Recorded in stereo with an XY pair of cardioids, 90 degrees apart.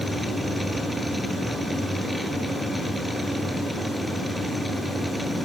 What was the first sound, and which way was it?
A machine running, straight ahead.